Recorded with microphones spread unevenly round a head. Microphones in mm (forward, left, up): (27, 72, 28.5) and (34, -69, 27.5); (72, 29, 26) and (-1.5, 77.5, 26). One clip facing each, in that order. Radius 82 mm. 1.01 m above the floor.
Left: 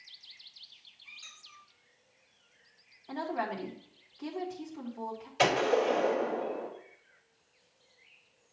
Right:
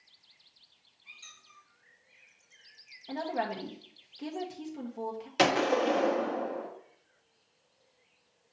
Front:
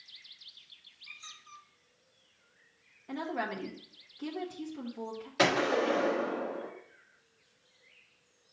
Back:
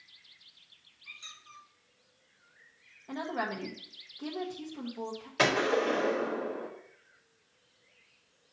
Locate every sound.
1.1 s a squeak: 165° right, 1.8 m
3.1 s a woman speaking: 140° right, 1.3 m
5.4 s a gunshot: 120° right, 1.2 m